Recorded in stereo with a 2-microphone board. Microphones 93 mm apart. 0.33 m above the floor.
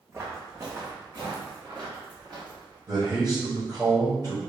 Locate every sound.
0.1 s footsteps: 25° right (ahead or behind), 1.0 m; by 2.8 s 50° right (ahead or behind), 2.5 m
2.9 s a man speaking: 40° right (ahead or behind), 1.2 m